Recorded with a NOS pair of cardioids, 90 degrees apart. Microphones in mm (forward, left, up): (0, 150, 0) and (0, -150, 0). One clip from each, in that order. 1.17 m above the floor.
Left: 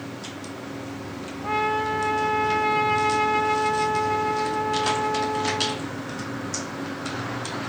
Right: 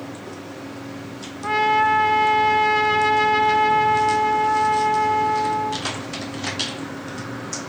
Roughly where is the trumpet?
Ahead right.